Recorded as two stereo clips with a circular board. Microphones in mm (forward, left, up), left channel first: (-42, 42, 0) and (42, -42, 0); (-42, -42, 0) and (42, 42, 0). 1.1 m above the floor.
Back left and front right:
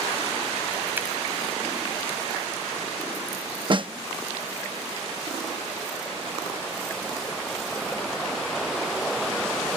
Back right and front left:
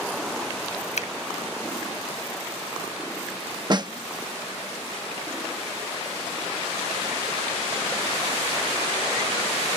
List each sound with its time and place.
1.0 s a finger snap: 120° right
3.7 s a snare drum: 5° right